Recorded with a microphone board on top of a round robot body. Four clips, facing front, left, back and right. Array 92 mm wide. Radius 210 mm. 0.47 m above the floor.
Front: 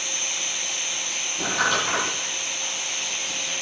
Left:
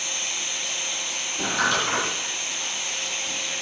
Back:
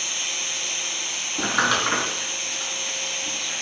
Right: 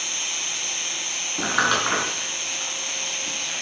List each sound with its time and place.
0.0 s an insect: 155° right, 4 m
1.4 s crumpling: 120° right, 4.5 m